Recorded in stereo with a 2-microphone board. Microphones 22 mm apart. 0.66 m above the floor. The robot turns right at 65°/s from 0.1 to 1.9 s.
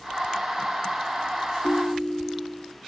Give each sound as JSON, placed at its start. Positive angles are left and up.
{"t": 1.6, "sound": "a ringtone", "side_deg": 70, "distance_m": 1.8}